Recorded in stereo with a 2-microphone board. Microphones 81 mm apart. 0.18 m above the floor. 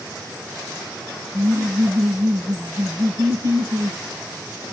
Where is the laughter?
70° right (ahead or behind), 3.5 m.